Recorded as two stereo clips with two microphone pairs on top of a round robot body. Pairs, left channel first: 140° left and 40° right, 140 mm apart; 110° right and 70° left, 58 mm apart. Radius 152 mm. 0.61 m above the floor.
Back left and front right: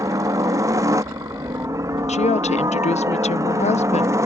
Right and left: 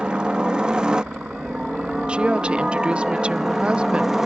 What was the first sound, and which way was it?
A helicopter, 5° left.